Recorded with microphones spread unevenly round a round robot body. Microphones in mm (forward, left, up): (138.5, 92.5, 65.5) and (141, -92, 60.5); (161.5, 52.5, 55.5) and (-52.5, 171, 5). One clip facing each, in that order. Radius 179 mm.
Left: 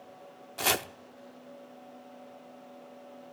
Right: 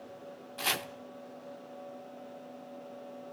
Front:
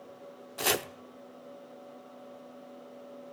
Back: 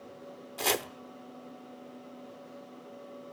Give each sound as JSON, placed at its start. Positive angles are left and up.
{"t": 0.6, "sound": "chopping", "azimuth_deg": 60, "distance_m": 1.0}